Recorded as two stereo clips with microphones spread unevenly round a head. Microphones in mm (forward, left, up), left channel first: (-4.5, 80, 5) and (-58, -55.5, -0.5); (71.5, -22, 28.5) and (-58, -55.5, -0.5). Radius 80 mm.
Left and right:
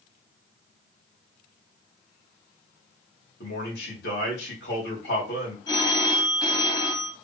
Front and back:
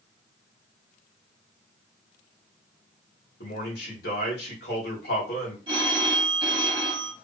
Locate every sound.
3.4 s a man speaking: 35° left, 2.5 m
5.7 s a phone ringing: 130° left, 1.6 m